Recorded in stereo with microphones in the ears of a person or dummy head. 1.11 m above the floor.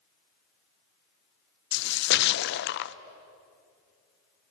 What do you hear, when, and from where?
1.7 s a splash: 45° left (ahead or behind), 0.6 m